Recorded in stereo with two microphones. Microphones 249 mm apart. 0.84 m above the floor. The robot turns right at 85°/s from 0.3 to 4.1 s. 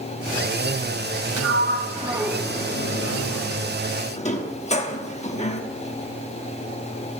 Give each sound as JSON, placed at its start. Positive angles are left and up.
{"t": 1.4, "sound": "a sliding door", "side_deg": -75, "distance_m": 1.0}